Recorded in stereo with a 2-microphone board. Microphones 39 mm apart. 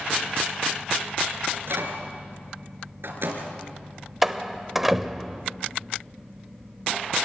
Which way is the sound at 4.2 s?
5° right (ahead or behind).